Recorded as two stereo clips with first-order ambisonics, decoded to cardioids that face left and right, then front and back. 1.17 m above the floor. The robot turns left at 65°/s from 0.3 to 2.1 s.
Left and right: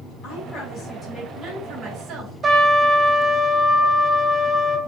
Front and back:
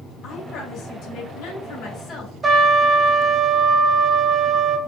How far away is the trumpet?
About 0.6 m.